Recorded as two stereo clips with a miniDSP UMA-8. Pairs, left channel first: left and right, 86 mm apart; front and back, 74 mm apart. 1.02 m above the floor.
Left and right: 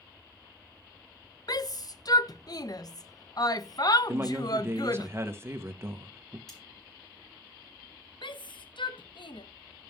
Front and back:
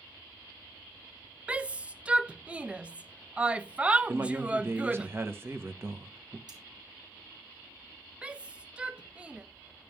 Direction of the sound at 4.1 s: 135° right.